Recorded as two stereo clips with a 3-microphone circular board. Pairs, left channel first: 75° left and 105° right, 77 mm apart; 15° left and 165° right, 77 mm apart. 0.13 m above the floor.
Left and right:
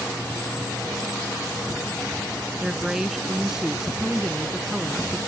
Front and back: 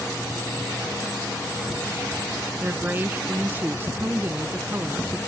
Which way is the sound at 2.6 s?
Straight behind.